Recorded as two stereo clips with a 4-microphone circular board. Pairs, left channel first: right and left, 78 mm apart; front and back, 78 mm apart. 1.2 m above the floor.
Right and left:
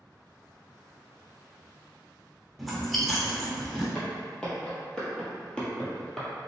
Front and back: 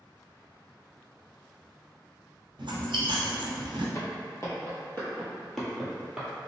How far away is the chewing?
About 0.7 m.